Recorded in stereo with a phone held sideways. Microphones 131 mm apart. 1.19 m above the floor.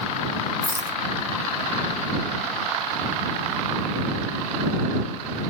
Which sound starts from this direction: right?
A rattle, at 0.6 s.